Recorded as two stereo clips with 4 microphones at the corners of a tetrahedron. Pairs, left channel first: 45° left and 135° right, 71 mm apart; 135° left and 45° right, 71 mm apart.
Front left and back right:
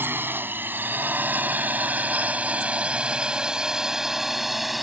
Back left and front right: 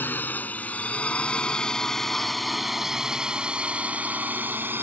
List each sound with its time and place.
0.0 s a drone: 175° right; by 4.8 s 45° right